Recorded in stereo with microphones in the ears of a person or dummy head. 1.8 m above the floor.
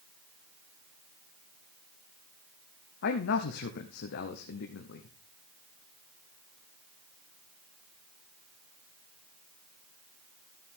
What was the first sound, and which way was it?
A man speaking, 55° left (ahead or behind).